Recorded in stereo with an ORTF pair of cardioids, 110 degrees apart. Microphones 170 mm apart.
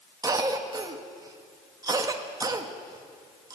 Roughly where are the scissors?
No scissors in this recording.